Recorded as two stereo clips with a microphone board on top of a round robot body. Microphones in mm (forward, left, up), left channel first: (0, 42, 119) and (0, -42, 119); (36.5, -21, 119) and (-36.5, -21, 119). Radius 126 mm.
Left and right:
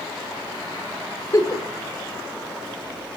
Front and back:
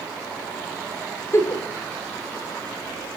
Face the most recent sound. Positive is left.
turn(degrees=45)